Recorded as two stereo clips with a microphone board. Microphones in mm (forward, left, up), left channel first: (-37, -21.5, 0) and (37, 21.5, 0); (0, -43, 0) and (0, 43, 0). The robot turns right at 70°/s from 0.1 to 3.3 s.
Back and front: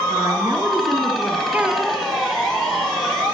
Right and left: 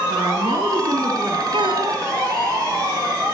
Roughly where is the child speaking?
Left.